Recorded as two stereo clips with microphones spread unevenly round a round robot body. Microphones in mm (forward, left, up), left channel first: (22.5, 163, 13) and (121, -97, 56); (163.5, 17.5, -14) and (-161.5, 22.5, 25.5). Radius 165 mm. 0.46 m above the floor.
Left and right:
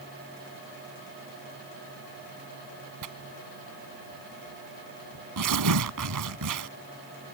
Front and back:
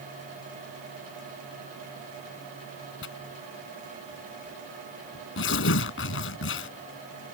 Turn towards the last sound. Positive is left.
turn(degrees=-55)